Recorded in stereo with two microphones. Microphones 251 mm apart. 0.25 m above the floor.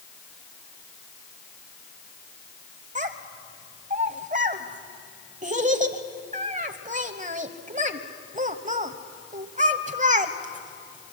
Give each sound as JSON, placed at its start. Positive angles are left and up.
{"t": 3.0, "sound": "a child speaking", "side_deg": -30, "distance_m": 1.0}